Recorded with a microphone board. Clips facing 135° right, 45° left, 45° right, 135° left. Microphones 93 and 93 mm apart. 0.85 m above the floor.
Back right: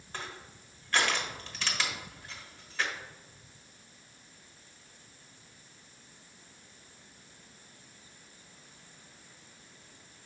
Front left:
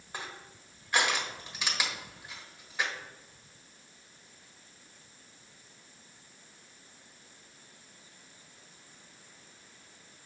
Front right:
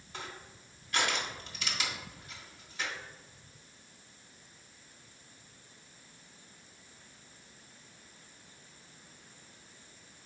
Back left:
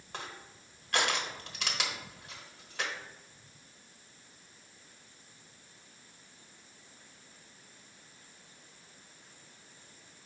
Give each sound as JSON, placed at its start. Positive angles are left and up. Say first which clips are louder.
{"t": 0.1, "sound": "crushing", "louder": "even, back left 1 dB", "azimuth_deg": 120, "distance_m": 1.2}